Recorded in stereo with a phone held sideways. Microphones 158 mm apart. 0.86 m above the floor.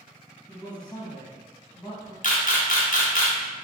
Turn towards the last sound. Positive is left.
turn(degrees=65)  # may be behind; listen again after turning